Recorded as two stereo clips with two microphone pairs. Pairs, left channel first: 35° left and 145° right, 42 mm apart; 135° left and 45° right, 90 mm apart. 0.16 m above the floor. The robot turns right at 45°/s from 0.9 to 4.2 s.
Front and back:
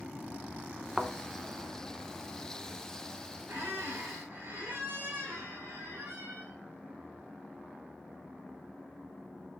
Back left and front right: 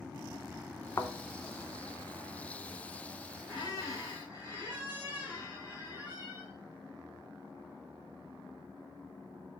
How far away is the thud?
About 0.5 m.